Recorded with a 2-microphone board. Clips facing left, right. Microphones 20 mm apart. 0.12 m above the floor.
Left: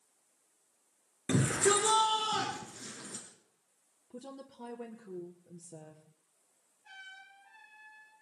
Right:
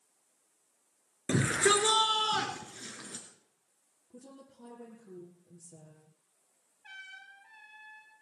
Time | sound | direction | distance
1.3 | a shout | 45° right (ahead or behind) | 1.8 m
4.1 | a woman speaking | 60° left (ahead or behind) | 2 m
6.8 | a trumpet | 75° right (ahead or behind) | 8 m